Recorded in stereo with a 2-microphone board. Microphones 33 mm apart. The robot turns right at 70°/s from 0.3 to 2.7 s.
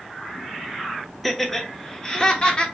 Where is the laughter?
Centre (ahead or behind), 0.9 m; by 2.6 s 30° left (ahead or behind), 0.9 m.